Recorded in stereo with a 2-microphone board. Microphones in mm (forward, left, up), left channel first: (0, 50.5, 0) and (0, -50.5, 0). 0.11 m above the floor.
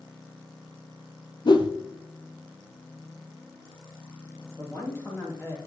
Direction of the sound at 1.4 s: 50° left (ahead or behind).